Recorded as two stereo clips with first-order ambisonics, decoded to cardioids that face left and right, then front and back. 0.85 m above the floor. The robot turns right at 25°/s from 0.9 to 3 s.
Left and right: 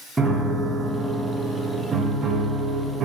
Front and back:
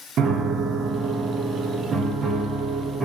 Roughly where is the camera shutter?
No camera shutter in this recording.